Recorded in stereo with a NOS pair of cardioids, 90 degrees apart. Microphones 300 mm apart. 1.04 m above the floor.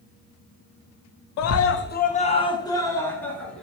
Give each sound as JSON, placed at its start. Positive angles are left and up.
{"t": 1.4, "sound": "a scream", "azimuth_deg": 70, "distance_m": 0.6}